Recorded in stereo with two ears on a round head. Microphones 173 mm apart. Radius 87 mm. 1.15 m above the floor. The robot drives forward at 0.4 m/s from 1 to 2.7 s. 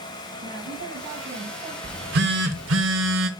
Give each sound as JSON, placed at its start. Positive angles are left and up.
{"t": 0.4, "sound": "a woman speaking", "side_deg": -60, "distance_m": 7.0}
{"t": 1.8, "sound": "a phone buzzing", "side_deg": -50, "distance_m": 1.0}